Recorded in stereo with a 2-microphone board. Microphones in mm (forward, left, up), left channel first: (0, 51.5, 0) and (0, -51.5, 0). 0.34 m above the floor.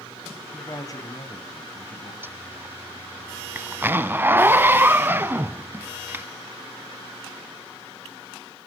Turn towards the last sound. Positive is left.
turn(degrees=-20)  # may be behind; listen again after turning